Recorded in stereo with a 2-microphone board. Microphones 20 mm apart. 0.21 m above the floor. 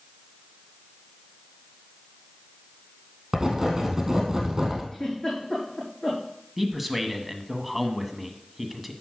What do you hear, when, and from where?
3.3 s writing: 20° right (ahead or behind), 3 m
4.9 s a giggle: 30° left (ahead or behind), 6 m
6.6 s a man speaking: 5° right (ahead or behind), 1.2 m